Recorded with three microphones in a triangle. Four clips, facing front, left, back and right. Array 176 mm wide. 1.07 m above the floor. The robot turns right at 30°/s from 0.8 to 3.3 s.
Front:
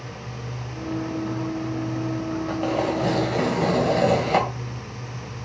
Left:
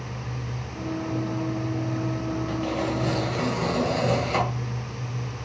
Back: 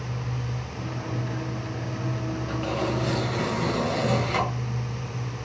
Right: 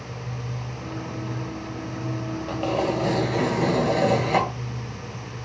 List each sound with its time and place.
2.5 s tearing paper: 45° right, 2.0 m; by 4.5 s 25° right, 2.0 m